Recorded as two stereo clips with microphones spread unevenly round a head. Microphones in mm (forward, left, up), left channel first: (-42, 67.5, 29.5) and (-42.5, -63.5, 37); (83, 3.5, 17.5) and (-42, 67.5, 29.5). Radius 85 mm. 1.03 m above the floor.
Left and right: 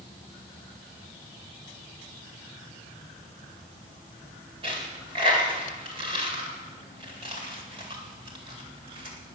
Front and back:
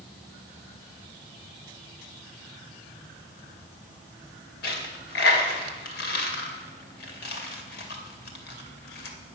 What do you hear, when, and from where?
4.6 s a dropped coin: 30° right, 2 m